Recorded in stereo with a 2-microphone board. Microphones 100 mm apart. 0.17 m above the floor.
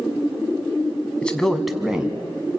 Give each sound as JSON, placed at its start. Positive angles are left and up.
{"t": 1.2, "sound": "a man speaking", "side_deg": 10, "distance_m": 1.5}